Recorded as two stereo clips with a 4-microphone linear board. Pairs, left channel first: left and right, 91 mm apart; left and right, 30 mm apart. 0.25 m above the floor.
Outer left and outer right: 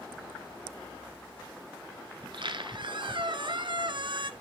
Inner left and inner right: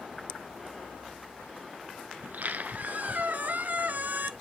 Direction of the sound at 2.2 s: 60° right (ahead or behind).